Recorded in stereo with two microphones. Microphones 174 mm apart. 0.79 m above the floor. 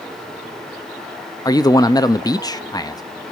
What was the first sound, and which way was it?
A man speaking, 20° left (ahead or behind).